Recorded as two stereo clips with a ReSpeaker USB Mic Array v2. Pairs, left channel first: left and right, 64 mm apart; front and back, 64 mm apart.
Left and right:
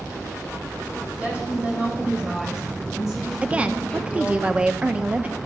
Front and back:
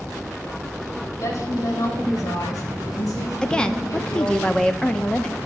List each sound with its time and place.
1.2 s a woman speaking: 25° right, 3.5 m; by 4.4 s 5° left, 4 m
3.4 s a woman speaking: 55° right, 0.7 m